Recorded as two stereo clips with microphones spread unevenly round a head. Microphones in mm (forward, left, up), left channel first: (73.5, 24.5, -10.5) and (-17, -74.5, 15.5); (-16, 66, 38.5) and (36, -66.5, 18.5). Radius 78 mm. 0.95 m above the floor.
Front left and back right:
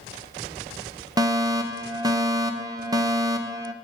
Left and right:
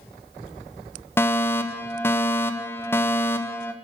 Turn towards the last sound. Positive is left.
turn(degrees=180)